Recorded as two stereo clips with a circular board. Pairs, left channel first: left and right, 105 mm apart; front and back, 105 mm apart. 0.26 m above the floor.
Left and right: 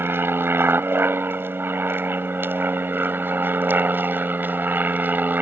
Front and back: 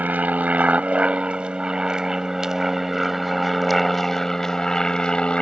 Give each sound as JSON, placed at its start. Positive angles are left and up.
{"t": 0.0, "sound": "an aircraft", "azimuth_deg": -125}